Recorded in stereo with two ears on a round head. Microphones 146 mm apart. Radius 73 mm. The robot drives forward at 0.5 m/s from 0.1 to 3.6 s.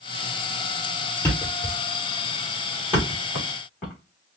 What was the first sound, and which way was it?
A thud, 10° left (ahead or behind).